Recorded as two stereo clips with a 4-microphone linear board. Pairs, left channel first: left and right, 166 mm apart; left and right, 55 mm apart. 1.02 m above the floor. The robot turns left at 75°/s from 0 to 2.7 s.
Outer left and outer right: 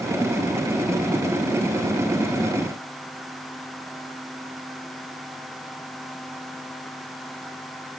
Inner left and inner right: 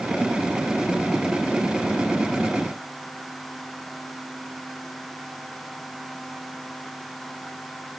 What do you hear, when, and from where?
Only background noise.